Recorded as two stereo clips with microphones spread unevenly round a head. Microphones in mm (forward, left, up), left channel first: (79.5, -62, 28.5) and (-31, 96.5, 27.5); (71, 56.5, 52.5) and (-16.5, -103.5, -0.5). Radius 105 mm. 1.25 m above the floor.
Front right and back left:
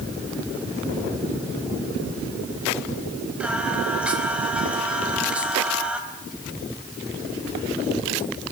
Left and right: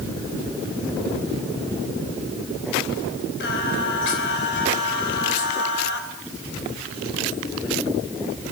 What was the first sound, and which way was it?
Singing, 40° left.